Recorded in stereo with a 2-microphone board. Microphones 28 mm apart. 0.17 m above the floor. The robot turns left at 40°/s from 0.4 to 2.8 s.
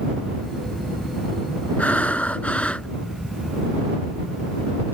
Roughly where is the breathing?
Left.